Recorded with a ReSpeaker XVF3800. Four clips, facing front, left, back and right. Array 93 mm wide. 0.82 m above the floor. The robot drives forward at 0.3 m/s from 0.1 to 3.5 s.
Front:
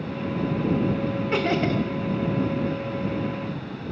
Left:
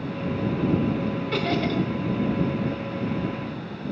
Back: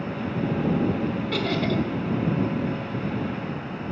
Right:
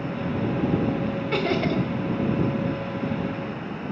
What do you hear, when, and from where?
1.3 s laughter: 25° right, 0.7 m; by 1.8 s 40° right, 0.7 m